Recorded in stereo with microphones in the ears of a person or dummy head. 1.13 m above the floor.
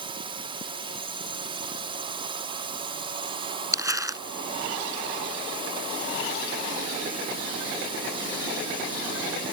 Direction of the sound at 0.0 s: 25° right (ahead or behind).